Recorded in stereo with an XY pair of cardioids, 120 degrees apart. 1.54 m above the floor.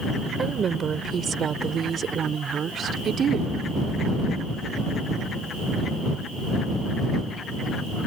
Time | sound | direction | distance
0.4 | a woman speaking | 35° right | ?